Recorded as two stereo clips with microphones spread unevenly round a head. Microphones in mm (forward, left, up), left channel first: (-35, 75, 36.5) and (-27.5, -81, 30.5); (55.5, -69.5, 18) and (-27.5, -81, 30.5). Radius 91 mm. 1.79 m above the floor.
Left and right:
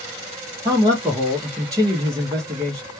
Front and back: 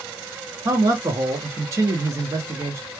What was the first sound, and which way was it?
A man speaking, 150° right.